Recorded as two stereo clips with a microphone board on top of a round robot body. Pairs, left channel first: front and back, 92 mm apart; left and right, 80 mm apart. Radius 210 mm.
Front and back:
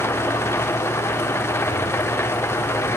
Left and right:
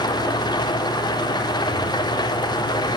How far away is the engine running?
About 1.2 m.